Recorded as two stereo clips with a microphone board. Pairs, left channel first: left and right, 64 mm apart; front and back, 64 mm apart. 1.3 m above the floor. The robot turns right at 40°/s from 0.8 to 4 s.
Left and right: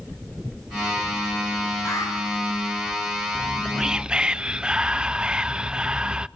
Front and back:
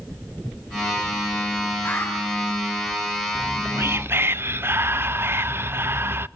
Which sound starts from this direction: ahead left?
An alarm, at 1.9 s.